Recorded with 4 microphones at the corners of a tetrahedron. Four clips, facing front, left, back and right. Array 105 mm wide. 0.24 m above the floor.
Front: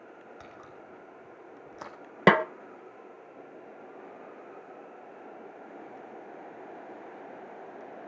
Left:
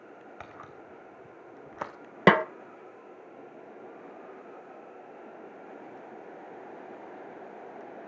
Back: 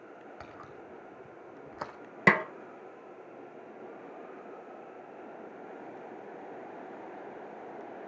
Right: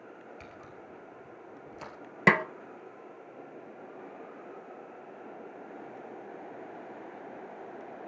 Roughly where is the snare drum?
Ahead left.